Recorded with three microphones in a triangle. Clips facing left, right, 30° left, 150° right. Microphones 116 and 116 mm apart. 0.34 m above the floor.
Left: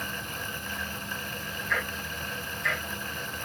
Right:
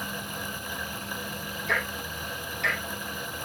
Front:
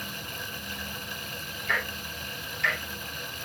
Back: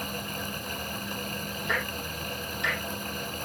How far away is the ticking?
About 8 m.